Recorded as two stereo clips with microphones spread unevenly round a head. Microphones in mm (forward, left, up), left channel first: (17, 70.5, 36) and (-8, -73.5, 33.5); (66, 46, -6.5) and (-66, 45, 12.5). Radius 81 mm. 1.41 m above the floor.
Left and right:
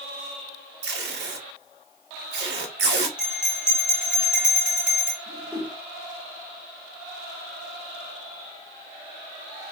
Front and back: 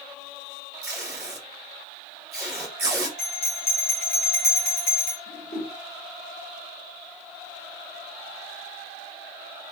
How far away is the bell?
About 3 m.